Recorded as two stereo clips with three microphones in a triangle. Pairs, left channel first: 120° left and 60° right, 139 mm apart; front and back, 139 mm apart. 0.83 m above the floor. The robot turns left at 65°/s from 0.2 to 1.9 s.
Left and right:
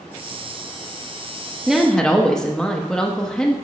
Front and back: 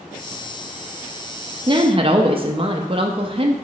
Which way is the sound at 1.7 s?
140° right.